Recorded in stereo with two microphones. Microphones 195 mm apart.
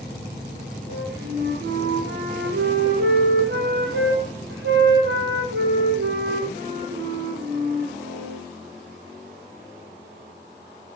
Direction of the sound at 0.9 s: 85° right.